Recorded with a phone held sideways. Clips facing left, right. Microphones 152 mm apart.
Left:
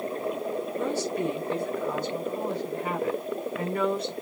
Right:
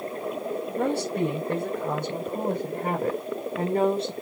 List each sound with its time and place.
0.8 s a woman speaking: 65° right (ahead or behind), 4 m; by 4.1 s 25° right (ahead or behind), 2 m